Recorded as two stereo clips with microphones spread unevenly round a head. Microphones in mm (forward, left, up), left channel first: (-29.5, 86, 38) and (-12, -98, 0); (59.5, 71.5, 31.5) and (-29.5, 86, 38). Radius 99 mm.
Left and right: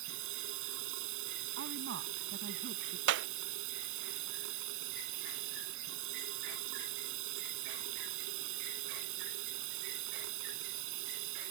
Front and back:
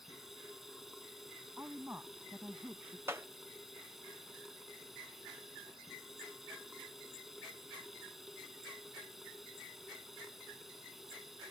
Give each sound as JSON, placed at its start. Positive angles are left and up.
{"t": 0.0, "sound": "running water", "azimuth_deg": -100}
{"t": 1.6, "sound": "a woman speaking", "azimuth_deg": -110}
{"t": 3.1, "sound": "a clap", "azimuth_deg": -115}